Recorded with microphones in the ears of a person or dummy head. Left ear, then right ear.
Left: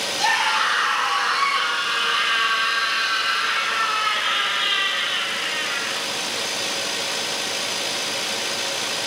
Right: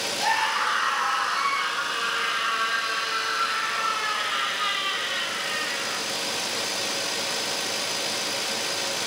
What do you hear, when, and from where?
0.2 s a scream: 20° left (ahead or behind), 3 m; by 6.0 s 75° left (ahead or behind), 3.5 m